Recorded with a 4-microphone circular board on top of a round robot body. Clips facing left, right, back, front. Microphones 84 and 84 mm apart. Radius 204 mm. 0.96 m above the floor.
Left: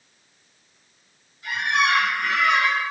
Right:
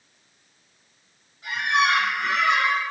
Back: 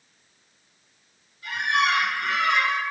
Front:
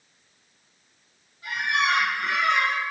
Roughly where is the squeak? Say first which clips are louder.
Even, back 1 dB; ahead right.